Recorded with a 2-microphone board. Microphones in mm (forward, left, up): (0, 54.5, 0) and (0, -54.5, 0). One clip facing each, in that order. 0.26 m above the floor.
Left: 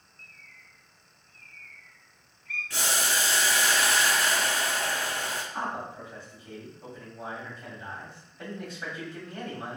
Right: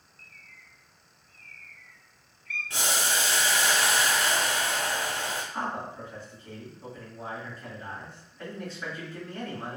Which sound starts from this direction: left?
A bird, at 0.2 s.